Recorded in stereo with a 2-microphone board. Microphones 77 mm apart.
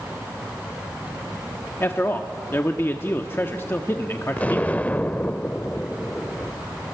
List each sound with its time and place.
1.8 s a man speaking: 30° left (ahead or behind), 1.0 m
4.4 s an explosion: 20° left (ahead or behind), 0.6 m